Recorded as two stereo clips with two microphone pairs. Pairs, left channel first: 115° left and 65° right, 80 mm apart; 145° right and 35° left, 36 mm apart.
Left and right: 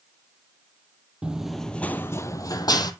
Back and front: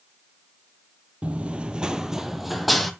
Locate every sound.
1.2 s running footsteps: straight ahead, 0.6 m; by 2.9 s 130° left, 0.8 m